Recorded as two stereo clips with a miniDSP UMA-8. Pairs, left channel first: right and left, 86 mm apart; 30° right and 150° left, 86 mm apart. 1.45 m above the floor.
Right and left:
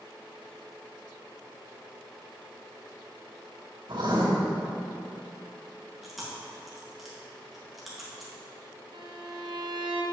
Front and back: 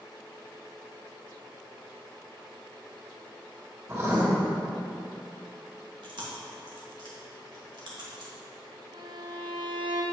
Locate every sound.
3.9 s writing: 100° left, 2.5 m
6.0 s chewing: straight behind, 1.9 m
8.9 s a violin: 120° left, 0.8 m